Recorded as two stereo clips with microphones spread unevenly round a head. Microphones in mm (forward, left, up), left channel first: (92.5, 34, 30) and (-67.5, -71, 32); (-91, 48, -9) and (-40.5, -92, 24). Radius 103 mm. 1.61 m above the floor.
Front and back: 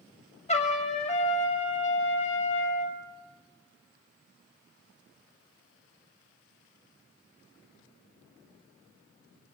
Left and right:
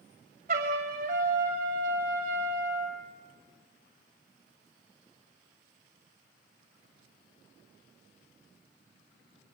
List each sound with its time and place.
0.5 s a trumpet: 25° right, 2.5 m